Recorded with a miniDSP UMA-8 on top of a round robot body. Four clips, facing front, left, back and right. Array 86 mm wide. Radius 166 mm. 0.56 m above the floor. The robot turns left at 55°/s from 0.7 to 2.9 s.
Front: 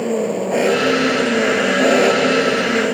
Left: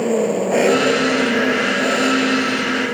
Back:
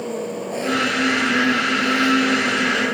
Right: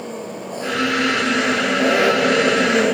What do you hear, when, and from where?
0.0 s an engine running: 60° left; by 2.9 s 65° right